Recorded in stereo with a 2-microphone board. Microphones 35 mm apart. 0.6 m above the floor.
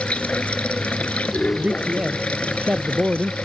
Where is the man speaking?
30° right (ahead or behind).